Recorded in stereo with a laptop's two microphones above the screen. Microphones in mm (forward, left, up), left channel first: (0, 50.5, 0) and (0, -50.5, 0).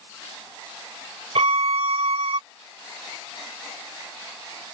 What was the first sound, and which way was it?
A violin, 75° right (ahead or behind).